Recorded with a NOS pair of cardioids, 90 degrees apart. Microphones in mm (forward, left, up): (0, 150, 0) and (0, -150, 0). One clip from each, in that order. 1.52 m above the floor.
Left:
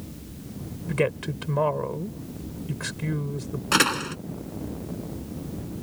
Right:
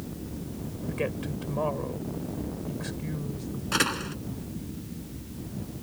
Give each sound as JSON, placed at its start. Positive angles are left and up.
{"t": 0.9, "sound": "a woman speaking", "azimuth_deg": 70}
{"t": 3.7, "sound": "a door slam", "azimuth_deg": 65}